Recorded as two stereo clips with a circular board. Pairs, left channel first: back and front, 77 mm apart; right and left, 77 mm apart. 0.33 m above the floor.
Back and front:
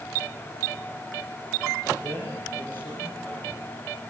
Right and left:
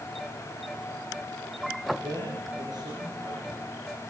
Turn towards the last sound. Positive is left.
turn(degrees=120)